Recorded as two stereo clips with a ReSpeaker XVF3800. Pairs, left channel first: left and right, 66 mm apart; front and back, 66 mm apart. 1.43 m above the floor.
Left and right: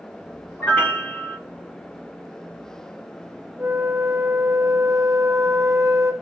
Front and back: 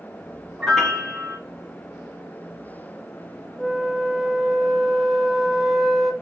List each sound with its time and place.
0.6 s a piano: 85° left, 0.9 m
3.6 s a flute: 80° right, 0.8 m